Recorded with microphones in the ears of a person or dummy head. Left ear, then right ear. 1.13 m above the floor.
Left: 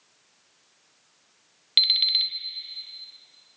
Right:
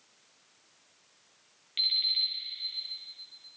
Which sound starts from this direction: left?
An alarm clock, at 1.8 s.